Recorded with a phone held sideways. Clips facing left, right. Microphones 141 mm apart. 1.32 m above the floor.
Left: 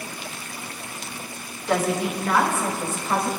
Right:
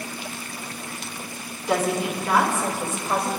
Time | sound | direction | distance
1.7 | a woman speaking | 10° right (ahead or behind) | 2 m